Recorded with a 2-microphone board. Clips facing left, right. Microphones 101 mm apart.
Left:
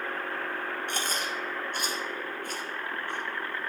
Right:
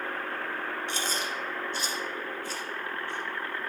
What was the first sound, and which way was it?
Chewing, 55° left (ahead or behind).